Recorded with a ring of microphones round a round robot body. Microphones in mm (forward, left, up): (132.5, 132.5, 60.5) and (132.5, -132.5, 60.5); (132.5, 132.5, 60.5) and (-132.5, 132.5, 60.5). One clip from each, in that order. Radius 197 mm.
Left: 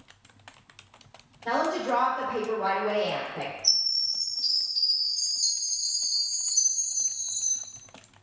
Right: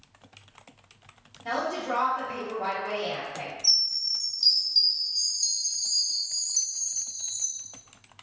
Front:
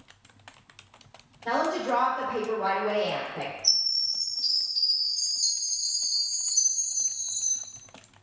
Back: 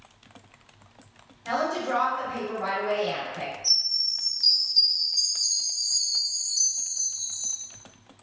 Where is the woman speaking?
105° right, 1.7 m.